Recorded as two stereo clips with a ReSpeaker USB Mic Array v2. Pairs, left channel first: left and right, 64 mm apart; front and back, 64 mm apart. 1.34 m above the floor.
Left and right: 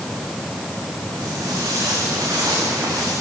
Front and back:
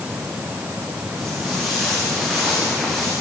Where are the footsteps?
100° right, 8 m; by 3.1 s 95° right, 9.5 m.